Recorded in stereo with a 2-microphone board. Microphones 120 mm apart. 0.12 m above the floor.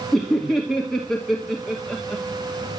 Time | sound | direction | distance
0.1 | laughter | 5° left (ahead or behind) | 2.5 m